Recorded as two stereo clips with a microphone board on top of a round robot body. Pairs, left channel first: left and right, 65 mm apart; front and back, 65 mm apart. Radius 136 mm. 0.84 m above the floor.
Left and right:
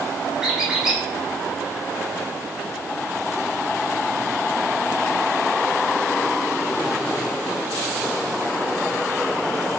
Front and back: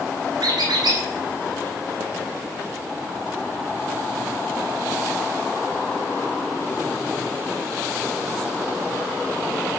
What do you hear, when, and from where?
0.4 s a squeak: 170° right, 1.5 m